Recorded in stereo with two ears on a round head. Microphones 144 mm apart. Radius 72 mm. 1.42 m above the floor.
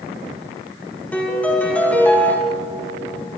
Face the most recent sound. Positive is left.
turn(degrees=10)  # may be behind; listen again after turning